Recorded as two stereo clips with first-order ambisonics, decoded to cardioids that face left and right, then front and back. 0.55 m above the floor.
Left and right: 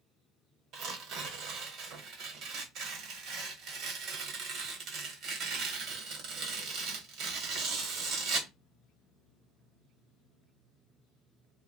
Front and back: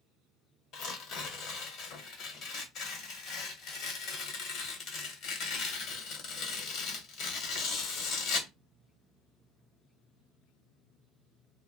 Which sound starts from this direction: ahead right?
Tearing paper, at 0.7 s.